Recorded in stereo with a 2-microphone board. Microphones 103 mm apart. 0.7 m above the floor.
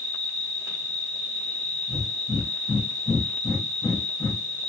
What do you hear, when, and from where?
0.0 s an insect: 15° left (ahead or behind), 1.5 m
1.9 s breathing: 35° left (ahead or behind), 0.8 m